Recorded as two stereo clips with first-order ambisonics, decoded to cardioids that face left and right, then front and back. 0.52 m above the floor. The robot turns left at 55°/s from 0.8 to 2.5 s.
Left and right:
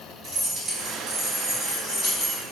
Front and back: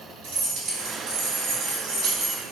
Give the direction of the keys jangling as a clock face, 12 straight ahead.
5 o'clock.